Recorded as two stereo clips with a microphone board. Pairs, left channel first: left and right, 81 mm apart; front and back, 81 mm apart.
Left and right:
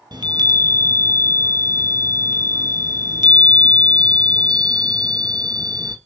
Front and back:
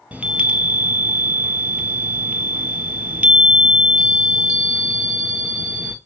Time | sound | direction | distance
0.1 | a chime | 105° right | 1.1 m